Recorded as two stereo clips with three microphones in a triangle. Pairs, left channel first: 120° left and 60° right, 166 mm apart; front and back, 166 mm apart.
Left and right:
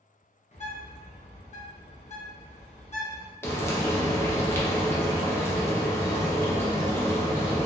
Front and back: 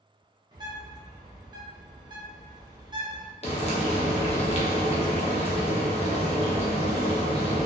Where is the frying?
45° left, 0.6 m.